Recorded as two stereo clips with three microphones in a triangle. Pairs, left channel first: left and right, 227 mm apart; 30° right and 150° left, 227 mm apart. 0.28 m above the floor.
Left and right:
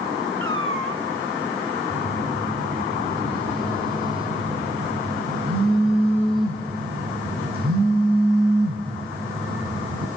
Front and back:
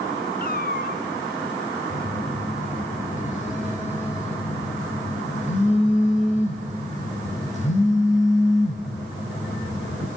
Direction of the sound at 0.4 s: 75° right.